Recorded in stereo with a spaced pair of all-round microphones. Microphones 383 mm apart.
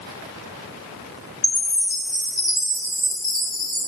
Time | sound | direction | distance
1.4 | a chime | 85° left | 7 m